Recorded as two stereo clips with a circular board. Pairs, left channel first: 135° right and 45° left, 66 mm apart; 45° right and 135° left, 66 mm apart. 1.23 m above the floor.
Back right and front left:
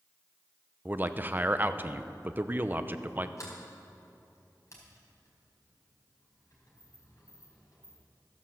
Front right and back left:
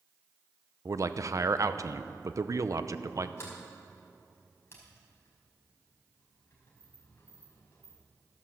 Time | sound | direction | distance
0.8 | a man speaking | 105° left | 0.7 m
3.4 | a sliding door | 95° right | 4.5 m